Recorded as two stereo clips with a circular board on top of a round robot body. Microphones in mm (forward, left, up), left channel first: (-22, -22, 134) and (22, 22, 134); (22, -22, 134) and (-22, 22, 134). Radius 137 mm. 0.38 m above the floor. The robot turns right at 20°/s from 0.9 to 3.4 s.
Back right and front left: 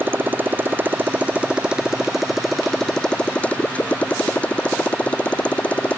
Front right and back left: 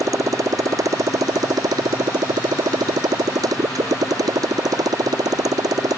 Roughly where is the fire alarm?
No fire alarm in this recording.